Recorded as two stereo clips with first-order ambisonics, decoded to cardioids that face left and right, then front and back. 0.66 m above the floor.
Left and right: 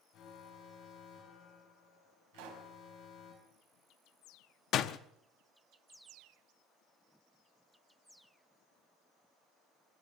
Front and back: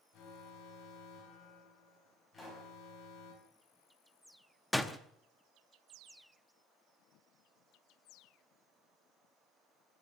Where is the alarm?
45° left, 5.5 m.